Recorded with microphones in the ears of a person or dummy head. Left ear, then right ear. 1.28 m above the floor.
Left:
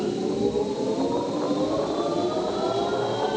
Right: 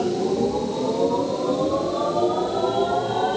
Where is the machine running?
40° right (ahead or behind), 5 m.